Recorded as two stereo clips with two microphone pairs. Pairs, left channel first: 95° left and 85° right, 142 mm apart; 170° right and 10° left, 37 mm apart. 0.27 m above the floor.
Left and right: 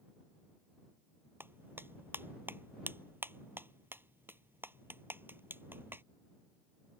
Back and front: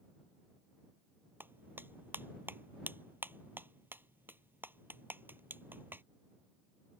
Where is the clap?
10° right.